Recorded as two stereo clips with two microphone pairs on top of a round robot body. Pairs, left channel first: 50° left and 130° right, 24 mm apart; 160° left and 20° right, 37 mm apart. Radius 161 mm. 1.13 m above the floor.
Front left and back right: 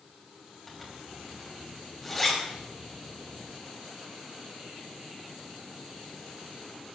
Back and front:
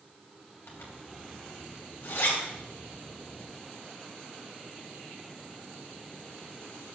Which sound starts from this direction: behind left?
A zipper, at 0.7 s.